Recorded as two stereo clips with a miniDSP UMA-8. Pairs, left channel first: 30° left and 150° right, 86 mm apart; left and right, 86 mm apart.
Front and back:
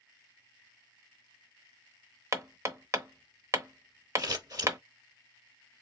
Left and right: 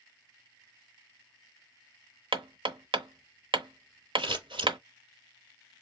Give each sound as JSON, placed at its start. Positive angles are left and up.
{"t": 2.3, "sound": "hammering", "azimuth_deg": -95, "distance_m": 0.8}
{"t": 4.2, "sound": "scissors", "azimuth_deg": -105, "distance_m": 1.8}